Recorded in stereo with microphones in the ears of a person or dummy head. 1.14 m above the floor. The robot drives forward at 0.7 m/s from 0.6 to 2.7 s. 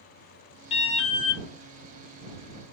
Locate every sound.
0.7 s an alarm: 35° left (ahead or behind), 1.1 m; by 1.4 s 60° left (ahead or behind), 0.8 m